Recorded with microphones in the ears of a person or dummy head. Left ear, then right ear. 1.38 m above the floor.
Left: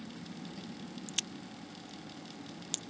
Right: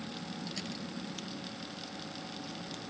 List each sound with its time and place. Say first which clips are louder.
0.0 s a vehicle: right 5 dB; 60° right (ahead or behind); by 2.9 s 55° right (ahead or behind)
1.1 s a crack: left 3 dB; 50° left (ahead or behind)